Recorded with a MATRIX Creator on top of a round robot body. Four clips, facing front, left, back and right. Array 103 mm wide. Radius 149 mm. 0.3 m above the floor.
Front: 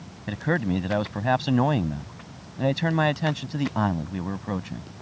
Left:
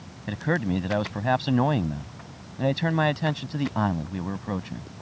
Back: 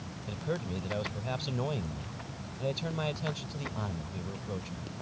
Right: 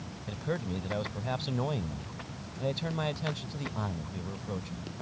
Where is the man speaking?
40° left.